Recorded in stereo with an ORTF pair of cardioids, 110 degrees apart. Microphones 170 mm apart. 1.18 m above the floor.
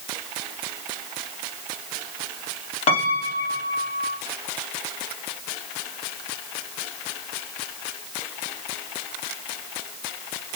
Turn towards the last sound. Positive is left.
turn(degrees=40)